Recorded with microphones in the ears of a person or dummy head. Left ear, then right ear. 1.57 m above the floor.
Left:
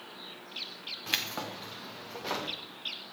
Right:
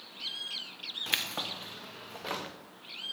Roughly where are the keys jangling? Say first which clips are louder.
Even; centre.